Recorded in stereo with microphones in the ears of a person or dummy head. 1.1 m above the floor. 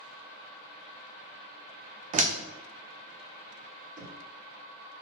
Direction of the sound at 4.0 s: 45° right (ahead or behind).